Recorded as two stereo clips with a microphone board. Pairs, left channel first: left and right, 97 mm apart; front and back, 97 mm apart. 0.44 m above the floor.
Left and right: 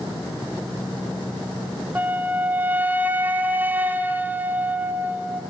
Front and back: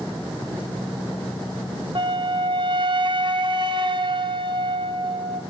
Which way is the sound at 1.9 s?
160° right.